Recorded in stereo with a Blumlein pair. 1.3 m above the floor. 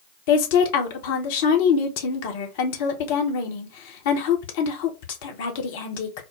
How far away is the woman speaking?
About 1.0 m.